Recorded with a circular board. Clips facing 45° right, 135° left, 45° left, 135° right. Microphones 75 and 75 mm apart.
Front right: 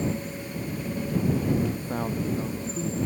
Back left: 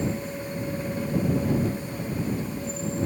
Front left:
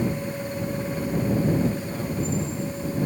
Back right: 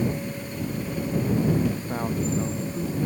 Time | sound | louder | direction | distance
1.7 | a man speaking | front right 1 dB, back right 1 dB | 80° right | ?